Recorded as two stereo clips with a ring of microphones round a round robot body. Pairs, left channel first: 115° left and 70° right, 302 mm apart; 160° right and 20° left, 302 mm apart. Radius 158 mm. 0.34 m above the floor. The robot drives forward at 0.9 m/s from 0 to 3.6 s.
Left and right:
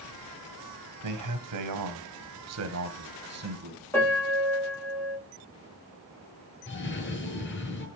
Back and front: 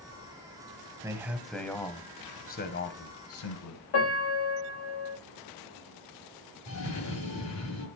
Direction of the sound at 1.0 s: 55° right.